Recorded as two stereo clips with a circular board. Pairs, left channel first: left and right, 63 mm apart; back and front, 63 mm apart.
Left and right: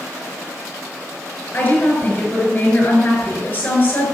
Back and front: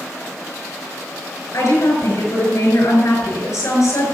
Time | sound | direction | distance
1.5 | a woman speaking | 155° left | 5 m